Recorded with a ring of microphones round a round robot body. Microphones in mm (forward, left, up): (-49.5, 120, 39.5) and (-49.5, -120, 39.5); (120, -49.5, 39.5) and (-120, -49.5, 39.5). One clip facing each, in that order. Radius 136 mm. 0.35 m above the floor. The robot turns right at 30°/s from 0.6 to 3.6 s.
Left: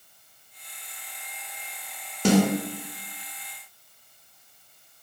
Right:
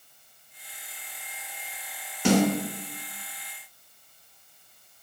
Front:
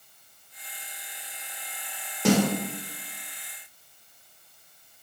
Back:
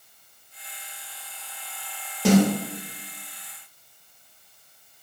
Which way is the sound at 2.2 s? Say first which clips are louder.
Left 1 dB, back 4 dB; 90° left.